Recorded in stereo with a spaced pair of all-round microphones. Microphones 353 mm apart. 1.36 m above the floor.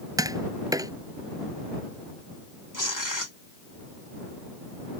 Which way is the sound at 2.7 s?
60° left (ahead or behind).